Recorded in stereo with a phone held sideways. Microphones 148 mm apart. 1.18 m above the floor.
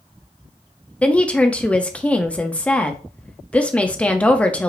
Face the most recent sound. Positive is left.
turn(degrees=10)  # may be behind; listen again after turning